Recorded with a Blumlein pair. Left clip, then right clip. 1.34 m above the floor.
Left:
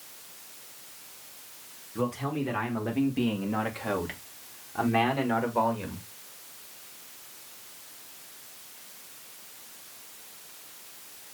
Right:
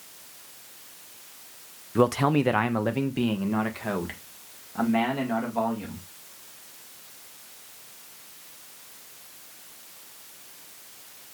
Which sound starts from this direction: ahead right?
A man speaking, at 1.9 s.